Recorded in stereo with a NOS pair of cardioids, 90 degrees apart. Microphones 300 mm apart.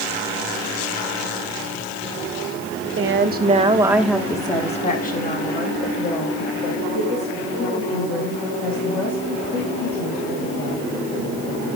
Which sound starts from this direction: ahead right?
A woman speaking, at 3.0 s.